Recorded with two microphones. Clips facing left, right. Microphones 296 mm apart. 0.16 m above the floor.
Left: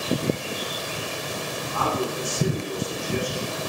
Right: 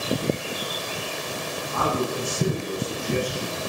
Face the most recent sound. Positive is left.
turn(degrees=-65)  # may be behind; listen again after turning